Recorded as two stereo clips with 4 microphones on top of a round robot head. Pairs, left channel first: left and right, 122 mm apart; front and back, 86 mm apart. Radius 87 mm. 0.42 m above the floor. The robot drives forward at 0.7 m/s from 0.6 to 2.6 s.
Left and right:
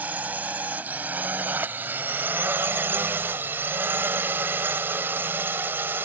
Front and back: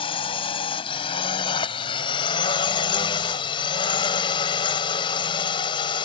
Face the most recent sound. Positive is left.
turn(degrees=-15)